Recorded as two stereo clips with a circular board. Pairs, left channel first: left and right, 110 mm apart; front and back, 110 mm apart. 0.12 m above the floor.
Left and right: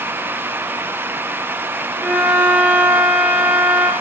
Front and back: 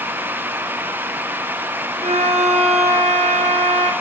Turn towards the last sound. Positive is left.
turn(degrees=-165)